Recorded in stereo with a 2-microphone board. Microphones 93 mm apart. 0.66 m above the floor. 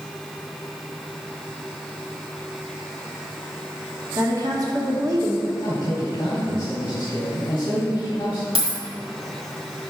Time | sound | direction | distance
4.2 | a woman speaking | 40° right (ahead or behind) | 1.1 m
5.6 | a man speaking | 55° left (ahead or behind) | 1.2 m
8.6 | a dropped coin | 90° right | 1.4 m